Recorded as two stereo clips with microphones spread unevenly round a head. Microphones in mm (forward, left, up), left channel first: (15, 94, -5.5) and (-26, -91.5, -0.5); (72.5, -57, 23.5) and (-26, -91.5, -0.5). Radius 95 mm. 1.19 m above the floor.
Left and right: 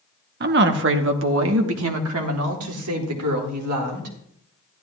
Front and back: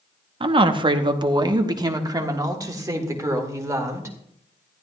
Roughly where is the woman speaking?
Behind right.